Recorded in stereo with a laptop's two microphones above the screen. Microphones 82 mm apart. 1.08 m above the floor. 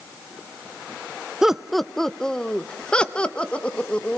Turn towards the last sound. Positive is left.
turn(degrees=15)  # may be behind; listen again after turning